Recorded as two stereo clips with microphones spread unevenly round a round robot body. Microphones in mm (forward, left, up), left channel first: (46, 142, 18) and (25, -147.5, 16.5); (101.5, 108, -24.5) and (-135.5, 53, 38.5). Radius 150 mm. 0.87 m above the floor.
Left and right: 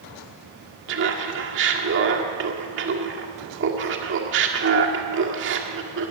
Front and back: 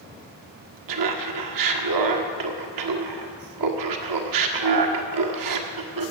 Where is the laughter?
150° right, 1.7 m.